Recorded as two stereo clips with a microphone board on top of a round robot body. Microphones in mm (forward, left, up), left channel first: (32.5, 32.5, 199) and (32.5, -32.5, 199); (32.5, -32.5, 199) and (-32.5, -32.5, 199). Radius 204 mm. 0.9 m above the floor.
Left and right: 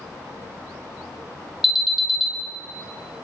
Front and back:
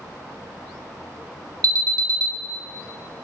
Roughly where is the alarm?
Behind.